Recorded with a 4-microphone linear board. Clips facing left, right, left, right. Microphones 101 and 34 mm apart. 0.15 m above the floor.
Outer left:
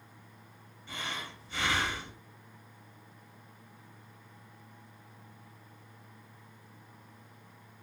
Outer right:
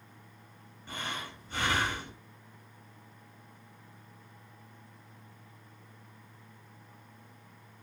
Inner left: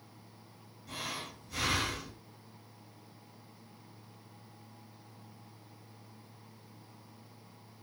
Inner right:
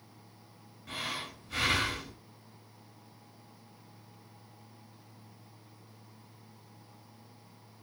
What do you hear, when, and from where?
0.9 s breathing: 50° right (ahead or behind), 1.1 m